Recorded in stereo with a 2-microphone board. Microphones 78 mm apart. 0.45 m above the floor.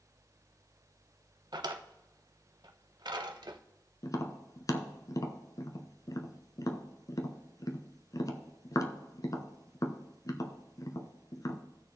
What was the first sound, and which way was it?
A drawer, 70° right (ahead or behind).